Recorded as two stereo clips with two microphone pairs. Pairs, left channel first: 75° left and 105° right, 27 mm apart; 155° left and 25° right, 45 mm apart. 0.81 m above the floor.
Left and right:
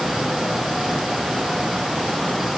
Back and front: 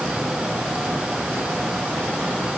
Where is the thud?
No thud in this recording.